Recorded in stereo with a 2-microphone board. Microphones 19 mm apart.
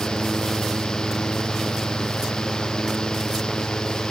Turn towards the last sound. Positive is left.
No sound to turn to.